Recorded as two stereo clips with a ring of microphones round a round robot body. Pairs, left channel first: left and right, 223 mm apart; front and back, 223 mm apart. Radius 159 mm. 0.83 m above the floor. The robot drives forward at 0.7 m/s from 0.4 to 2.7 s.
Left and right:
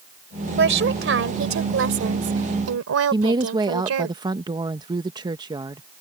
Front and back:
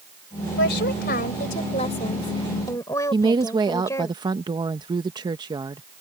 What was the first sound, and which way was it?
A woman speaking, 55° right.